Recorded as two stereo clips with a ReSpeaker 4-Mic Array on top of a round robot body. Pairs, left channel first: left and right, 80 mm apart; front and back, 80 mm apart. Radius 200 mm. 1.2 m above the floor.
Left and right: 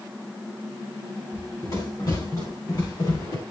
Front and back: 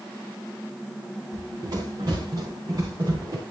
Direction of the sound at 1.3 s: 140° left.